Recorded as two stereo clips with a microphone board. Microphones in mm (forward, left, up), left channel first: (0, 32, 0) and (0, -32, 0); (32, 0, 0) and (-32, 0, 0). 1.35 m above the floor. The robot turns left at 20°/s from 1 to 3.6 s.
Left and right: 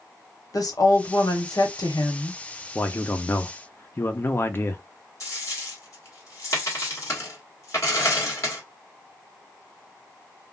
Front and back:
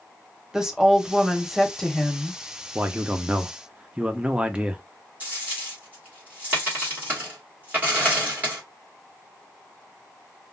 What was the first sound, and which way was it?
A woman speaking, 100° left.